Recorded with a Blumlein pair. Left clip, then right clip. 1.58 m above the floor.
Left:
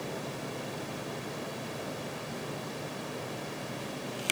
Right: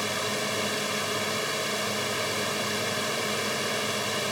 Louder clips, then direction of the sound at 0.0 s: Right 10 dB; 55° right.